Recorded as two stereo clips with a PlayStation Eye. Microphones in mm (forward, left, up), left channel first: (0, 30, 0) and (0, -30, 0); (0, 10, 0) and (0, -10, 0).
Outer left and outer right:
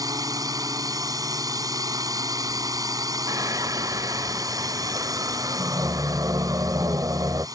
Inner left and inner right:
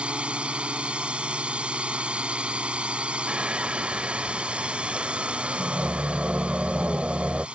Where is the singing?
65° right (ahead or behind).